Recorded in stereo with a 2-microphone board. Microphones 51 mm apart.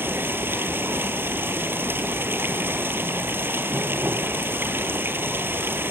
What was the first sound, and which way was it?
Running water, 45° right (ahead or behind).